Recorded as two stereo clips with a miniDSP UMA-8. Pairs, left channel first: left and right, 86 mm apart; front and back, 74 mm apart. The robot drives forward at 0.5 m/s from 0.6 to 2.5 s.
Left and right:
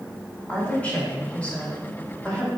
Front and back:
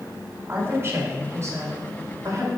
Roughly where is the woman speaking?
Behind left.